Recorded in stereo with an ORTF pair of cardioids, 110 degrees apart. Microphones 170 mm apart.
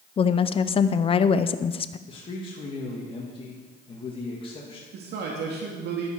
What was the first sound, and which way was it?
A woman speaking, 30° left.